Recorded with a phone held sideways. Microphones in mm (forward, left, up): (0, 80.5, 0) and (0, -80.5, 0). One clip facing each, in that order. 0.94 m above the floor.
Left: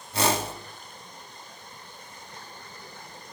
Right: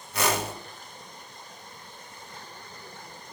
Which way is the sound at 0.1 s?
30° left (ahead or behind).